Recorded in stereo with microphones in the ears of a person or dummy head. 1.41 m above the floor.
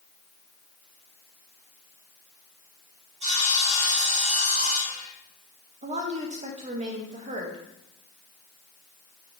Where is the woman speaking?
35° right (ahead or behind), 0.9 m.